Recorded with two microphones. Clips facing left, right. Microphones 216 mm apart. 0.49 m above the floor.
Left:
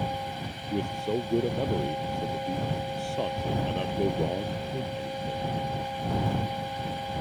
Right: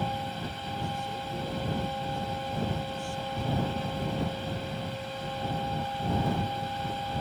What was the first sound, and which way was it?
A man speaking, 75° left (ahead or behind).